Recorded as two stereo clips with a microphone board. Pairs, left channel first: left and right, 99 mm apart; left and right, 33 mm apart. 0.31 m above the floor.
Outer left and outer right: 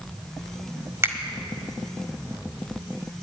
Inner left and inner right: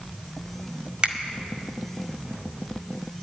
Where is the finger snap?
30° right (ahead or behind), 1.7 m.